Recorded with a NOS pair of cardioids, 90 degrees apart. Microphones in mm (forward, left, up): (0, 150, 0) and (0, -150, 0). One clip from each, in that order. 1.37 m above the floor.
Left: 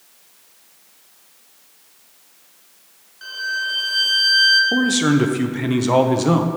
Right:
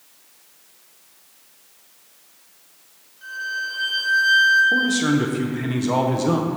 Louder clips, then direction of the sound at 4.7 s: Left 1 dB; 20° left.